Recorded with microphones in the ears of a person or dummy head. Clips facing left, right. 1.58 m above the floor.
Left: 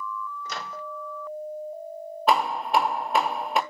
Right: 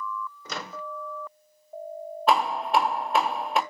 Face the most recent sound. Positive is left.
turn(degrees=0)  # may be behind; listen again after turning